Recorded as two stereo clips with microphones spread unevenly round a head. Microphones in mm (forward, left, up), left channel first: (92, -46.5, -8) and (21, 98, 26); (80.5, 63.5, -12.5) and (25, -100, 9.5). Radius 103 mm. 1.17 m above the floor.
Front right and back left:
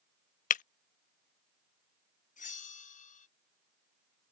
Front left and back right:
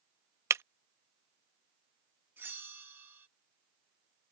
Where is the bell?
30° right.